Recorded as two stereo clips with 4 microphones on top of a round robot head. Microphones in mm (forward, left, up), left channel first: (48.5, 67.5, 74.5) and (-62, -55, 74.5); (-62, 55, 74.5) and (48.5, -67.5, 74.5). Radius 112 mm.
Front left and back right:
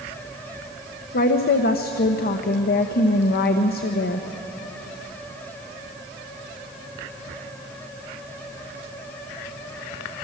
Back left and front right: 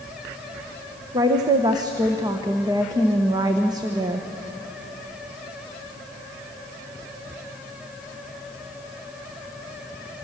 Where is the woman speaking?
20° left, 1.1 m.